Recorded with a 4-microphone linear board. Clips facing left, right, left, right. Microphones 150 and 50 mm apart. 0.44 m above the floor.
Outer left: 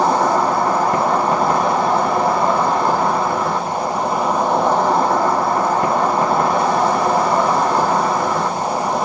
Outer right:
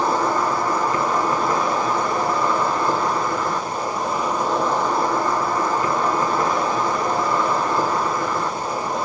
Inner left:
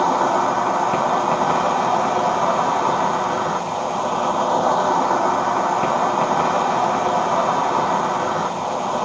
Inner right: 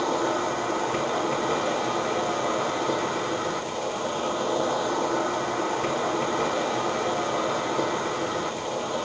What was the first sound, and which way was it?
An insect, 65° left (ahead or behind).